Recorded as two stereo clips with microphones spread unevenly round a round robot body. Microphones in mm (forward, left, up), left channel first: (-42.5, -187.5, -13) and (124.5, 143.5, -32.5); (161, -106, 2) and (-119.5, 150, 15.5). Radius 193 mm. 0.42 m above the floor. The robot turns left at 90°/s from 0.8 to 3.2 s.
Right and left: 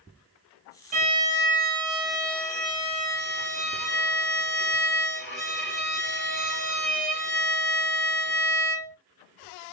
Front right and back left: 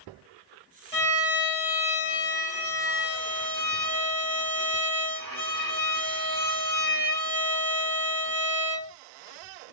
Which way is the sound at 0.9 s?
35° left.